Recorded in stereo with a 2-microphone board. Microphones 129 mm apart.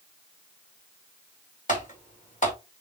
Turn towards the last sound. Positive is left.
turn(degrees=75)  # may be behind; listen again after turning